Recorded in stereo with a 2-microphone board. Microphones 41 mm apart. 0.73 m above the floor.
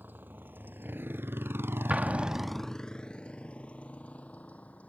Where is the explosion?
30° right (ahead or behind).